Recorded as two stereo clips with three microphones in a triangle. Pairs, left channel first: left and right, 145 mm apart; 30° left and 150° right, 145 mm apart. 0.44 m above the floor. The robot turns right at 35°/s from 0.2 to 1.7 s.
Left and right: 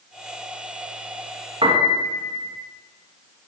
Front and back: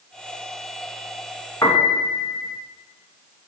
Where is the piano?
40° right, 1.8 m.